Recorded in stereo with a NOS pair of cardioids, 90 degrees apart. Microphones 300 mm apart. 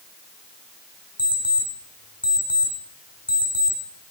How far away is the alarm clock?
About 6 m.